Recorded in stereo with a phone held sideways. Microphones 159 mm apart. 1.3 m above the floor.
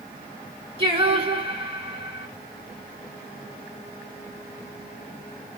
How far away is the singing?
About 1.9 m.